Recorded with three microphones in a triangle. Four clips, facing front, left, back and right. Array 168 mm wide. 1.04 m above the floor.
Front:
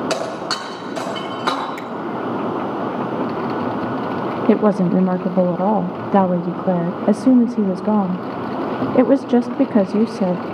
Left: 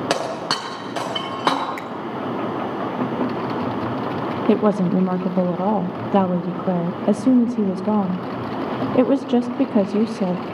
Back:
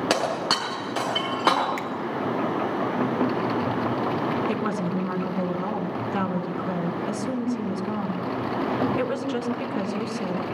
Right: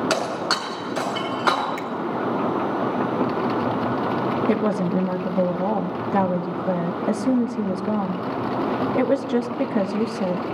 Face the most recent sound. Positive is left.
turn(degrees=20)